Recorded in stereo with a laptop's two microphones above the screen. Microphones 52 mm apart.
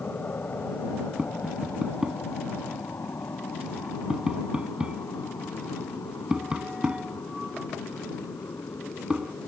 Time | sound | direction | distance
0.0 | an aircraft | 35° left (ahead or behind) | ?
1.2 | tapping | 20° right (ahead or behind) | ?